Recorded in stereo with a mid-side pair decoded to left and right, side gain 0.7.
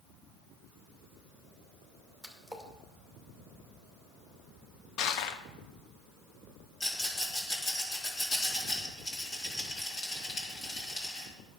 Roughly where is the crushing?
Ahead left.